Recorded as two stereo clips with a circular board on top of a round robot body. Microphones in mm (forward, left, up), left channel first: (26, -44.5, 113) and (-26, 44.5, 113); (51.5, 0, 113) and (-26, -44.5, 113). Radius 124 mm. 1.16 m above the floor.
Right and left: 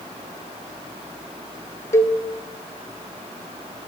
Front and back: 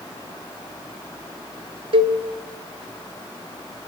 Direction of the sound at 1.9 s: 125° right.